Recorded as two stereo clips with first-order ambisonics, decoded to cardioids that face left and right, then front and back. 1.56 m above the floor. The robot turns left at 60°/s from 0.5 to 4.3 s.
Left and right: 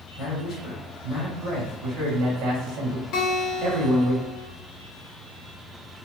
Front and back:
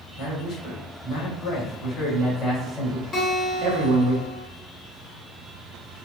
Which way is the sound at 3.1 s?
60° left.